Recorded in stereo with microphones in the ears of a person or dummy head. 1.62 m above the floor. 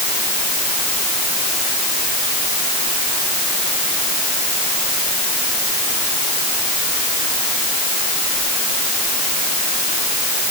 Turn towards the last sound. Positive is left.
No sound to turn to.